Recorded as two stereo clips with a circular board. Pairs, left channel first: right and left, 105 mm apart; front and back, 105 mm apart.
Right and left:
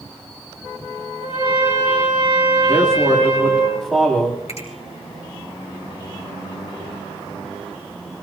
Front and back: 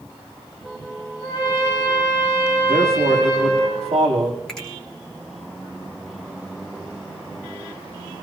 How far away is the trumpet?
About 8.5 m.